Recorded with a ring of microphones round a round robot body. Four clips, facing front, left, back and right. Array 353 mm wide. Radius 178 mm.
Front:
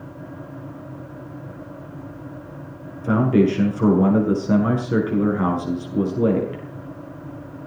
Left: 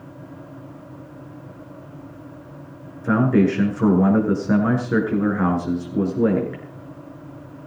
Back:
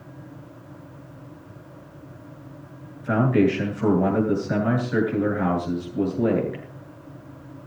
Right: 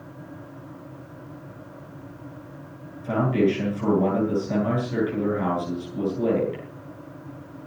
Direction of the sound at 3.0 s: 45° left.